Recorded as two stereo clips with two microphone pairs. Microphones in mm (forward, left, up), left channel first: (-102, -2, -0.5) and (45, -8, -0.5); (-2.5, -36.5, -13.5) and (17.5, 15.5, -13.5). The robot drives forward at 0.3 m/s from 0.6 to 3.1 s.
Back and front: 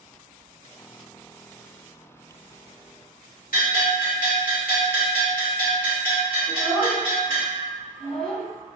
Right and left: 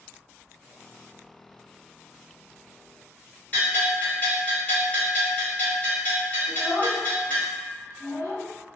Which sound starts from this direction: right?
A child speaking, at 6.5 s.